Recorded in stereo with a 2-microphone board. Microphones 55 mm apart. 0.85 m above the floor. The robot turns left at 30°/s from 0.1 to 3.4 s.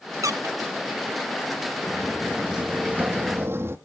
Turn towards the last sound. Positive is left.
turn(degrees=-50)  # may be behind; listen again after turning